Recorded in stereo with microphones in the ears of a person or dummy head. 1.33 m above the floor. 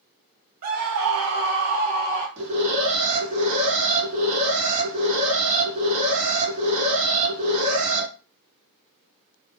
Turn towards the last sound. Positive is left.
turn(degrees=-40)  # may be behind; listen again after turning